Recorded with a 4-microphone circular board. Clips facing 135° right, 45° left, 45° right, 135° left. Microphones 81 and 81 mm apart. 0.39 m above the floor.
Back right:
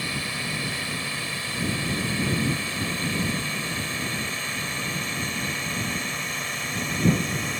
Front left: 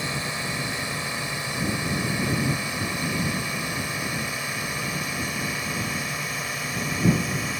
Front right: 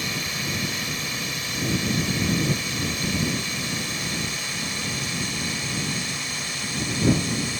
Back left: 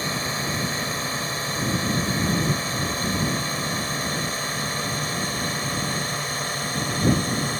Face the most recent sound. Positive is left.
turn(degrees=125)